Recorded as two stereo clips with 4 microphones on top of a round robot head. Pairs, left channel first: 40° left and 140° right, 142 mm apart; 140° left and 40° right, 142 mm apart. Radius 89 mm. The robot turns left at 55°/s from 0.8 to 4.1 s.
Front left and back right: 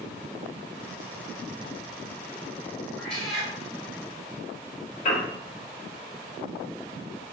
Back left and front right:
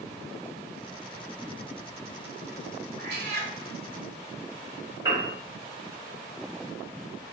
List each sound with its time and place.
3.0 s a cat meowing: 35° right, 0.8 m; by 3.5 s 65° right, 0.8 m
5.0 s a piano: 25° left, 2 m